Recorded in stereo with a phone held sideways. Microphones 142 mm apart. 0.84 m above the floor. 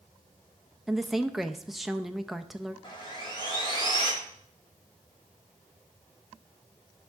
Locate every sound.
0.9 s a woman speaking: centre (ahead or behind), 0.5 m
2.8 s sawing: 35° left (ahead or behind), 2.5 m